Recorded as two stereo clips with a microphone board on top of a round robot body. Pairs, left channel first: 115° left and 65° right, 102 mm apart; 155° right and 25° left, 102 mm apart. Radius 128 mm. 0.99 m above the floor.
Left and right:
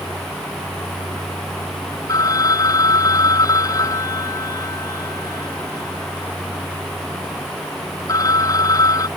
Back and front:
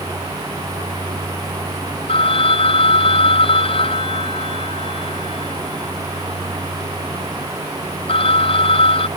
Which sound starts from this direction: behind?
A phone ringing, at 2.1 s.